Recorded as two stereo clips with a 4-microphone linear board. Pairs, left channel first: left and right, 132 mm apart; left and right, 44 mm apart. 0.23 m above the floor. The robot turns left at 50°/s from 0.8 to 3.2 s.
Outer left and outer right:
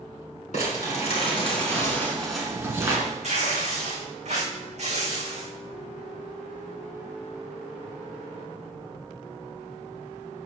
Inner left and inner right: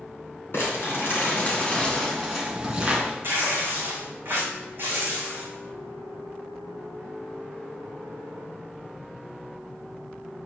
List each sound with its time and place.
0.5 s crumpling: 75° left, 2.5 m; by 3.0 s 30° right, 2.5 m
3.2 s tearing paper: 60° right (ahead or behind), 3.5 m